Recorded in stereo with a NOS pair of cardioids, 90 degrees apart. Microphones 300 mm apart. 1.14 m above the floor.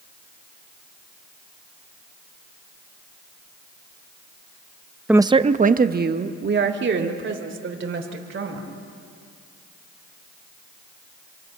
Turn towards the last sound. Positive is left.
turn(degrees=-40)